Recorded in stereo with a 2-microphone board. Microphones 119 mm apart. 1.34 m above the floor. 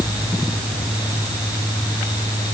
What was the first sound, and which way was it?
Only background noise.